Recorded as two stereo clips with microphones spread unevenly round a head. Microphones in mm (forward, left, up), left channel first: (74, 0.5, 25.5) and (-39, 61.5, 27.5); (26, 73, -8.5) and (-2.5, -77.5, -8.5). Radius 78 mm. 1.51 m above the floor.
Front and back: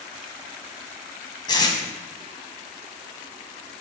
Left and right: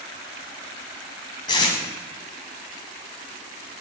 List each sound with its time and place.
1.5 s tape being pulled: 25° left, 2.5 m